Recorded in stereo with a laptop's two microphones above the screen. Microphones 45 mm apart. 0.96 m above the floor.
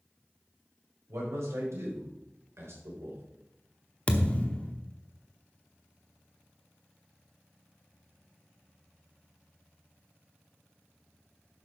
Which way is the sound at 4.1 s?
25° left (ahead or behind).